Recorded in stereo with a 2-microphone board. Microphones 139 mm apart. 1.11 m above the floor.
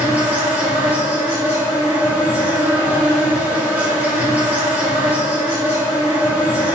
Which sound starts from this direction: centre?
An insect, at 0.0 s.